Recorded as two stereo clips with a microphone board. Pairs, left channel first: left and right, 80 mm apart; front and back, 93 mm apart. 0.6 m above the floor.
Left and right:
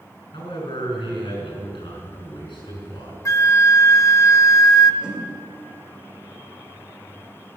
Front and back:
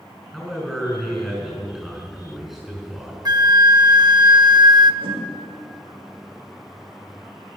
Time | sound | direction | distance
0.3 | a man speaking | 95° left | 5.5 m
3.2 | a flute | 135° left | 0.5 m
5.0 | a whoosh | 170° right | 2.0 m